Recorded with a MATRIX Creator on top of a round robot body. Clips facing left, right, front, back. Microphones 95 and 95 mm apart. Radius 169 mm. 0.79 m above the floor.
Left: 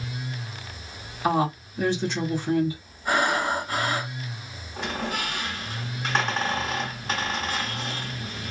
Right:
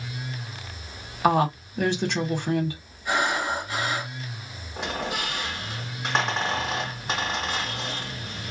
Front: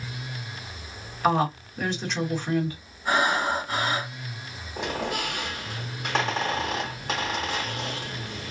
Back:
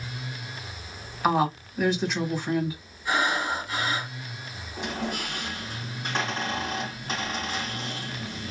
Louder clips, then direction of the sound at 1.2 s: Right 2 dB, even; 95° right.